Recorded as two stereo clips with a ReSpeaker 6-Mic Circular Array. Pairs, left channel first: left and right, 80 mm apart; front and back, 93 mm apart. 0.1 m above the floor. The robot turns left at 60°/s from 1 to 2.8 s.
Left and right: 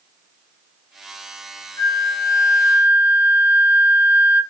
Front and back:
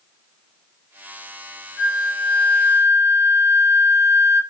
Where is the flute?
100° left, 1.4 m; by 4.4 s 40° left, 1.4 m.